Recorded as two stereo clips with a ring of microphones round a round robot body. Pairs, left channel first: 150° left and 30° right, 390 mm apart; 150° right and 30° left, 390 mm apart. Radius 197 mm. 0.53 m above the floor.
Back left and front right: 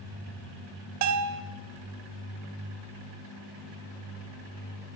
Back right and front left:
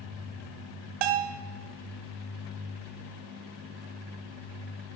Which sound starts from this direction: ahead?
A bell, at 1.0 s.